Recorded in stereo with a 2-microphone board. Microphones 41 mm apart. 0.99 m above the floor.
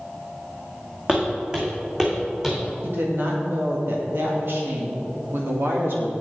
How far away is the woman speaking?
About 1.8 m.